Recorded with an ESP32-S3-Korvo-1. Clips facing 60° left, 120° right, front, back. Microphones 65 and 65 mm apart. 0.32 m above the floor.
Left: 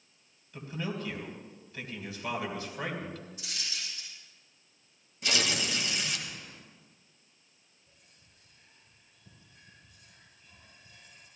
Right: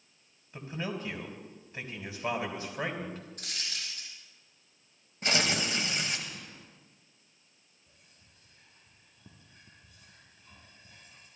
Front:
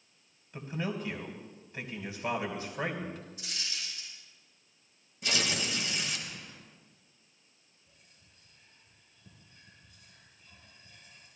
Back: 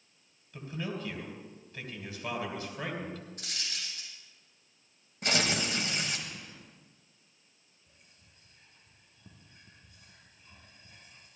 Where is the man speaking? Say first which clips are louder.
Even, front 2 dB; 60° right, 2.5 m.